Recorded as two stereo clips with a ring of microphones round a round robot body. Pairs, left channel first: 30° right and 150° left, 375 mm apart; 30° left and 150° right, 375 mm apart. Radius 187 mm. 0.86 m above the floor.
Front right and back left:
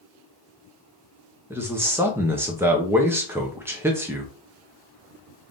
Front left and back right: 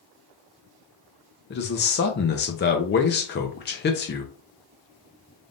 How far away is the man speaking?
About 0.7 m.